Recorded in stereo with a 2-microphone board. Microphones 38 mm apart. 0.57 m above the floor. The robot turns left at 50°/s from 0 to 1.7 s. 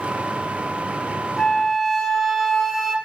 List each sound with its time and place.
1.4 s a flute: 10° left (ahead or behind), 0.8 m; by 3.0 s 5° right (ahead or behind), 0.8 m